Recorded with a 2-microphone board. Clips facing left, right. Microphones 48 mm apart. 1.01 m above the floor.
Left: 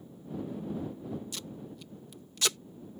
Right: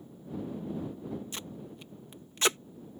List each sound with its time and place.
1.3 s tape being pulled: 30° right (ahead or behind)